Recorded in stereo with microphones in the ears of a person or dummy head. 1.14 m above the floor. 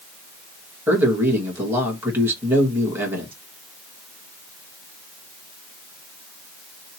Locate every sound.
0.9 s a man speaking: 15° right (ahead or behind), 1.3 m